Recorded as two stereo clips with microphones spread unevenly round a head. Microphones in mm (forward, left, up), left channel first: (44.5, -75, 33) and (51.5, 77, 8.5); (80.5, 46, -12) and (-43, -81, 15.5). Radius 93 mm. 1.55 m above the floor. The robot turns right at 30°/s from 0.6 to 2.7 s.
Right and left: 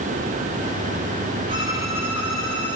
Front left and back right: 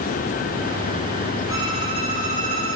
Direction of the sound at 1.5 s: 150° left.